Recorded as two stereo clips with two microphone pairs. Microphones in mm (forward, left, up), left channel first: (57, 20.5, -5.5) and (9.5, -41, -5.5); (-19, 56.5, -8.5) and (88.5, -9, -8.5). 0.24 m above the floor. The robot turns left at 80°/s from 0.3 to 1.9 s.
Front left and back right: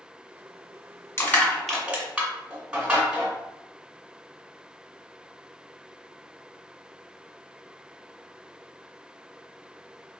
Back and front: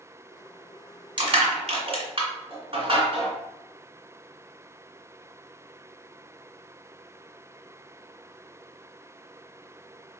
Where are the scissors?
No scissors in this recording.